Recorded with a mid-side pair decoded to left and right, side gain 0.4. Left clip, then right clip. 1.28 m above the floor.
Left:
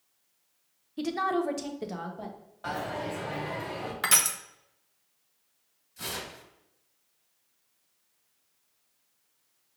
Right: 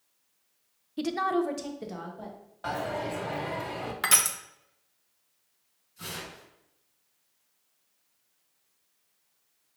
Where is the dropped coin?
25° right, 1.9 m.